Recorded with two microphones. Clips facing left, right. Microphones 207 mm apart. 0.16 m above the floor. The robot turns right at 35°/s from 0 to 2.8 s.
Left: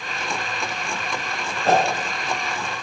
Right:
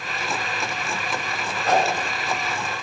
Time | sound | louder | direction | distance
1.6 | a whoosh | left 2 dB | 30° left (ahead or behind) | 1.5 m